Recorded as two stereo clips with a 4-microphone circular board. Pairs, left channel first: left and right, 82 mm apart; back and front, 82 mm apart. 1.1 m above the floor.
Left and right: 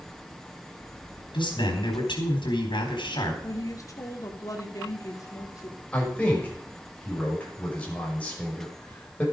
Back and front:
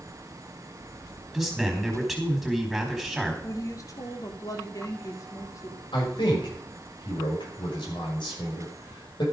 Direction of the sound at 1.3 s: 90° left.